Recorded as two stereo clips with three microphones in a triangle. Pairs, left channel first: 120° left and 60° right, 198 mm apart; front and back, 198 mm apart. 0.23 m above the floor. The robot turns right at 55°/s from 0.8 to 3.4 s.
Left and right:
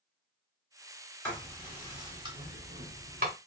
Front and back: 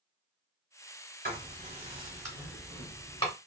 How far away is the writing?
About 1.7 m.